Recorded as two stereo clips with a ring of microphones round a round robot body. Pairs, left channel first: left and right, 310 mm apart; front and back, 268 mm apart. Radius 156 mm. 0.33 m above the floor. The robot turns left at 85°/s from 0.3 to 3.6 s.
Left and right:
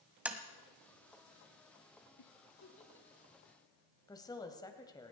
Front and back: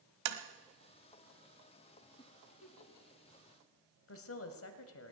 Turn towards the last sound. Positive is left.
turn(degrees=15)